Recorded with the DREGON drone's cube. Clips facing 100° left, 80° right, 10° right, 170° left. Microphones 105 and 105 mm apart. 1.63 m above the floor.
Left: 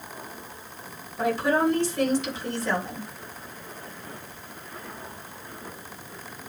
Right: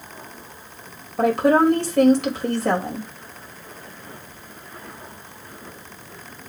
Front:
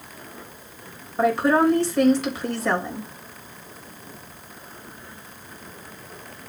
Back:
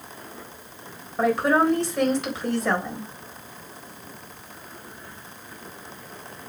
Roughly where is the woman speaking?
Right.